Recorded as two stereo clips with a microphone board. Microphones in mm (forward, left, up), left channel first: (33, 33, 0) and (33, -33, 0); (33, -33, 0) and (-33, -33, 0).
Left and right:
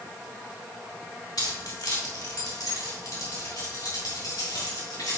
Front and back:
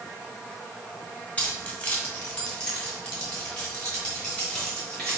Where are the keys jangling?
70° left, 1.9 m; by 5.2 s 75° left, 4 m.